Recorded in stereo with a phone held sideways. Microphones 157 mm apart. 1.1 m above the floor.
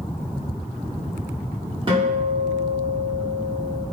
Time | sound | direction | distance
1.9 | a guitar | 35° right (ahead or behind) | 0.9 m